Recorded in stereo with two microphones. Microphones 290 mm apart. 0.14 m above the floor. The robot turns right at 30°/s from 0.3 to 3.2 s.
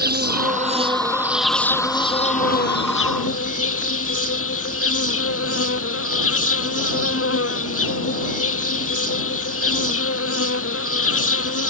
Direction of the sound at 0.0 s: 35° right.